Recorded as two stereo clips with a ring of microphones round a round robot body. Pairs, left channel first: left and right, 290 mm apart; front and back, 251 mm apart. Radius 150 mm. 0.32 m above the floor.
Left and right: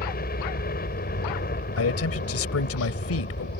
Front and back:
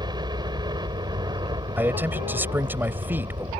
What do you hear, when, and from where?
0.0 s a helicopter: 120° left
1.8 s a man speaking: 100° left